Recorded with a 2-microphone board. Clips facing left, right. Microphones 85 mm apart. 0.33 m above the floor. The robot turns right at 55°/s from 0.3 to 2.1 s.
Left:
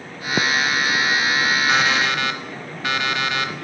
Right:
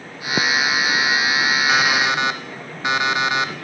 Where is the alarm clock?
Centre (ahead or behind), 0.9 m; by 3.5 s 20° right (ahead or behind), 0.9 m.